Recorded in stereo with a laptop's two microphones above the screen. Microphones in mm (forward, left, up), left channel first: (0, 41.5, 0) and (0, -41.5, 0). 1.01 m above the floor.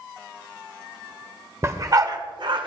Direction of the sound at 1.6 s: 35° right (ahead or behind).